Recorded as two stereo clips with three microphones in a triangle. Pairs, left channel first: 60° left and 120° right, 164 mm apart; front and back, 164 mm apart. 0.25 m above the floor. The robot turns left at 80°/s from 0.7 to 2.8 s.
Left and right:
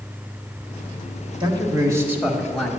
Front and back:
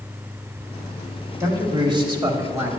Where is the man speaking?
130° right, 1.0 m; by 2.7 s 130° left, 1.0 m.